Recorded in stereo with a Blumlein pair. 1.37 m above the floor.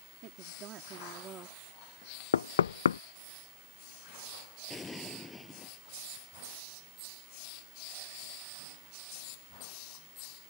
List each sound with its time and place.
0.2 s a woman speaking: 35° right; by 1.6 s 20° right
2.3 s knocking: 65° left
4.7 s an explosion: 15° left